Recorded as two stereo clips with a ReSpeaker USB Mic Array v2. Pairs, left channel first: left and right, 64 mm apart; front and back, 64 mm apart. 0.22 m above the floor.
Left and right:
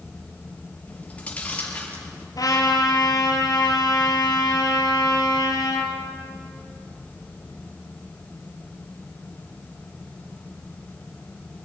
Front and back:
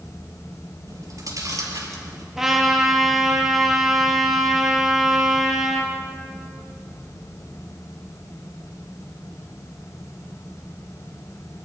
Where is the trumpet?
95° left, 3.5 m.